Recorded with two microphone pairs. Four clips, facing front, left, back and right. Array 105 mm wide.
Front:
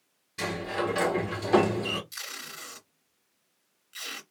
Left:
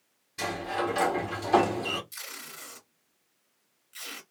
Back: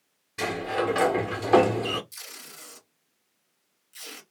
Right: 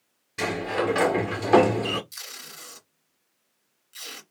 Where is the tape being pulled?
Straight ahead, 1.5 m.